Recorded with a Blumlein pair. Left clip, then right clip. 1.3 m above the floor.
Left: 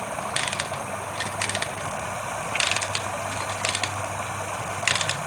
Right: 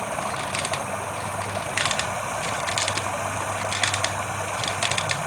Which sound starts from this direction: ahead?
Running water, at 0.0 s.